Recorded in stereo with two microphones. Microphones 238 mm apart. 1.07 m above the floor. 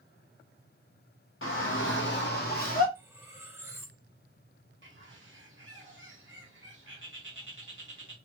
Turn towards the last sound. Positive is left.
turn(degrees=-55)  # may be behind; listen again after turning